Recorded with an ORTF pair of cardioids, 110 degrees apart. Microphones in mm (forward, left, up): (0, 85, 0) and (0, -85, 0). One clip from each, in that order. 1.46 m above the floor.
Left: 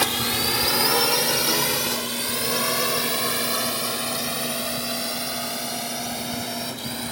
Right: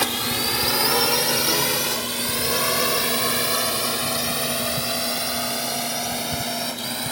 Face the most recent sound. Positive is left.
turn(degrees=-25)